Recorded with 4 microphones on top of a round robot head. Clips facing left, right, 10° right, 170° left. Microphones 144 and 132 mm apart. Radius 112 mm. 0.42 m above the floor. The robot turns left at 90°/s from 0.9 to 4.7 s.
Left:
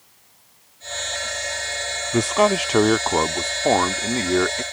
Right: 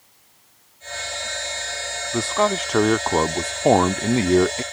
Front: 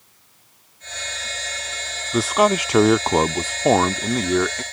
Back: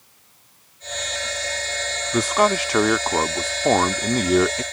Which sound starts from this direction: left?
A man speaking, at 2.1 s.